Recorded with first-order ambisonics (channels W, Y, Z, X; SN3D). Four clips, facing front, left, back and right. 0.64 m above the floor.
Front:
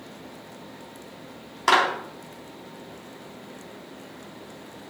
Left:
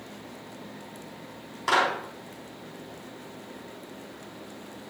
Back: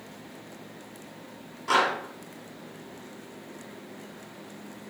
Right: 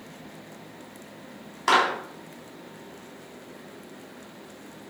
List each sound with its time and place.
1.7 s a clap: 20° right, 3.5 m